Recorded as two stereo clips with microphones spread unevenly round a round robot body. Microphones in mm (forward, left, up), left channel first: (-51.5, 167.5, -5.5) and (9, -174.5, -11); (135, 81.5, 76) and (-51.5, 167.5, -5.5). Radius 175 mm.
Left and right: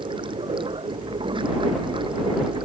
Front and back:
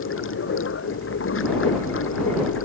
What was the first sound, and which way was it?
Running water, straight ahead.